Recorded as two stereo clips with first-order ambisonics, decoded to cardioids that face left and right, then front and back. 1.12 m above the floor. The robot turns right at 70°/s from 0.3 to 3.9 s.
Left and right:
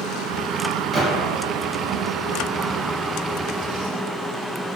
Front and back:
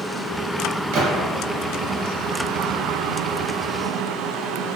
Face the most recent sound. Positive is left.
turn(degrees=45)